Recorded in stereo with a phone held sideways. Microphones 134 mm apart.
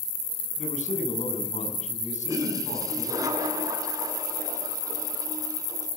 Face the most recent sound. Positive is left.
turn(degrees=-25)  # may be behind; listen again after turning